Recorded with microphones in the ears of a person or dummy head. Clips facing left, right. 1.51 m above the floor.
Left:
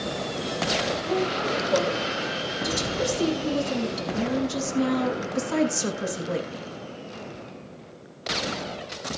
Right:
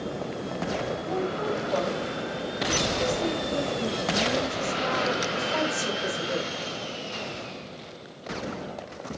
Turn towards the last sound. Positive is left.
turn(degrees=30)  # may be behind; listen again after turning